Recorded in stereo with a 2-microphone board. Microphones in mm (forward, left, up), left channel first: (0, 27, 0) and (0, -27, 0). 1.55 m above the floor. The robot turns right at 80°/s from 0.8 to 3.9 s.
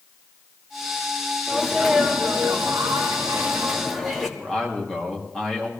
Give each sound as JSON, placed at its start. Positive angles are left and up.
{"t": 1.5, "sound": "a sneeze", "azimuth_deg": 165, "distance_m": 2.5}
{"t": 4.4, "sound": "a man speaking", "side_deg": 10, "distance_m": 3.5}